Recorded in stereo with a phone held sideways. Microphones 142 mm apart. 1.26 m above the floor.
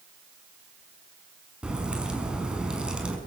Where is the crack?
5° right (ahead or behind), 5.5 m.